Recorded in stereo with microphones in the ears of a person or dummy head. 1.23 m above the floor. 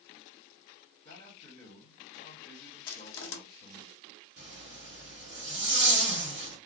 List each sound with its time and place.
1.1 s a man speaking: 40° left (ahead or behind), 1.4 m
2.9 s crushing: 60° left (ahead or behind), 0.8 m
4.4 s a zipper: 50° right (ahead or behind), 1.2 m